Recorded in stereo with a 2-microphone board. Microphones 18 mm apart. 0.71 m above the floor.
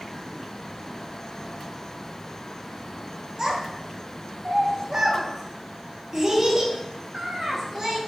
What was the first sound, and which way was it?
A child speaking, 30° right (ahead or behind).